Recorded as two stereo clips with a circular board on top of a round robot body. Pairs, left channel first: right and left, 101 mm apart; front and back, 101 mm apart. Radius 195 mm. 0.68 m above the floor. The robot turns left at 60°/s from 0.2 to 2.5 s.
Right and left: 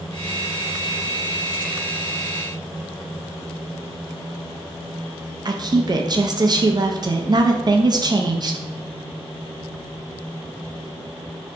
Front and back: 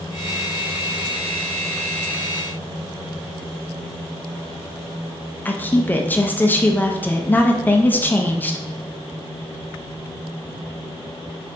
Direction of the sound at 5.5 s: 65° left.